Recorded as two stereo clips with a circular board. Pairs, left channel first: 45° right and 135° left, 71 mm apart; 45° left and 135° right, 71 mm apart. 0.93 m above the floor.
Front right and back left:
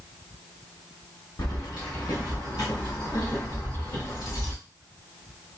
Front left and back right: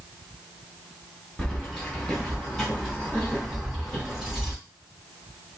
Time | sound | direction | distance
1.4 | keys jangling | 35° right | 1.1 m